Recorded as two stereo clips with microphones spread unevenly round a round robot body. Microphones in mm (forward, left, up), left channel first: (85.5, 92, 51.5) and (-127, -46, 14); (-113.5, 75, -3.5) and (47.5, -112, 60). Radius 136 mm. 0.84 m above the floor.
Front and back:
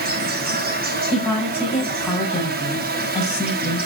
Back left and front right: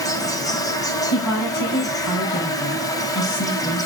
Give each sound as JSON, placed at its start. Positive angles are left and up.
{"t": 0.0, "sound": "an insect", "azimuth_deg": -170, "distance_m": 2.0}
{"t": 1.1, "sound": "a woman speaking", "azimuth_deg": 115, "distance_m": 7.0}